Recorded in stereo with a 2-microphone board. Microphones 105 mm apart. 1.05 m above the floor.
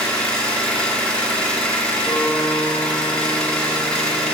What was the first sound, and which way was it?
An engine running, 10° left (ahead or behind).